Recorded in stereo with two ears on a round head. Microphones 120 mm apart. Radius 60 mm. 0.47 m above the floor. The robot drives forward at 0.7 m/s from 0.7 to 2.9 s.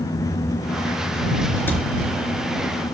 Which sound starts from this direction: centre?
A cupboard door, at 1.7 s.